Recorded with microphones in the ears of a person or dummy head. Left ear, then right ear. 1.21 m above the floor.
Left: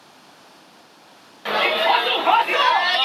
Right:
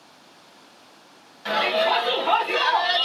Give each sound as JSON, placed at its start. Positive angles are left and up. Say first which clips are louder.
{"t": 1.4, "sound": "a shout", "louder": "left 3 dB", "side_deg": 10, "distance_m": 1.2}